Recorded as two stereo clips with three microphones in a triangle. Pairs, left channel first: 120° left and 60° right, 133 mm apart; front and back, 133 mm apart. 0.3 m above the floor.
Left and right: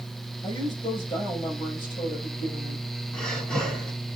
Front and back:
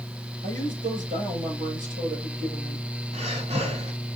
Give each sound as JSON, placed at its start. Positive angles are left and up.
{"t": 0.4, "sound": "a woman speaking", "azimuth_deg": 175, "distance_m": 6.5}
{"t": 3.1, "sound": "breathing", "azimuth_deg": -155, "distance_m": 1.9}